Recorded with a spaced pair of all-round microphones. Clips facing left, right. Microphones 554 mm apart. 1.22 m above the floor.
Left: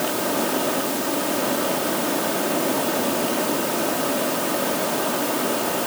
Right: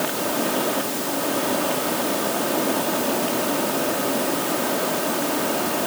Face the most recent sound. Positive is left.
No sound to turn to.